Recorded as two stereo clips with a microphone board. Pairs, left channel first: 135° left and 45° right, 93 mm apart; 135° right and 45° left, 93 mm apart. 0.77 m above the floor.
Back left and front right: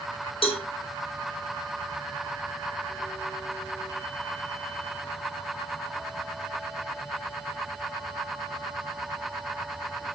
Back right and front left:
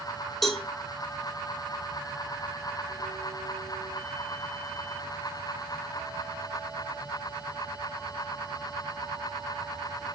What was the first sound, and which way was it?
A cowbell, 135° left.